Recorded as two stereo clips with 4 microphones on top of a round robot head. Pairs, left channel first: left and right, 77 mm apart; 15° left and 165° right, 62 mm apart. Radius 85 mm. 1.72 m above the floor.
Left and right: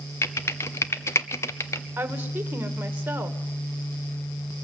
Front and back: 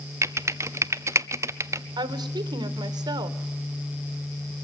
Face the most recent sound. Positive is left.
turn(degrees=-160)